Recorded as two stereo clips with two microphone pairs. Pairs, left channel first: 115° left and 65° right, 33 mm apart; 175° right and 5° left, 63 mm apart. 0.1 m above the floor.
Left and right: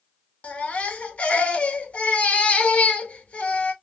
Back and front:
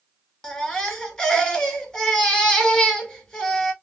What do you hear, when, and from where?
0.4 s a baby crying: 115° left, 0.9 m